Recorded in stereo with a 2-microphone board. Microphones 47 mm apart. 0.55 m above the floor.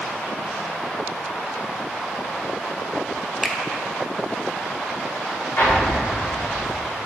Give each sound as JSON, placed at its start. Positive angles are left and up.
{"t": 3.4, "sound": "a finger snap", "side_deg": -10, "distance_m": 0.5}
{"t": 5.6, "sound": "an explosion", "side_deg": 65, "distance_m": 2.0}